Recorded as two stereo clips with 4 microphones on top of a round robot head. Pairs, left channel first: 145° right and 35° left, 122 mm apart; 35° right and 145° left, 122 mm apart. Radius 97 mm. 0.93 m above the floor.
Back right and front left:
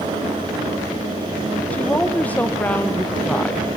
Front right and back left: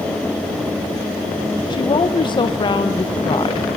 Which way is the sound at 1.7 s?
70° right.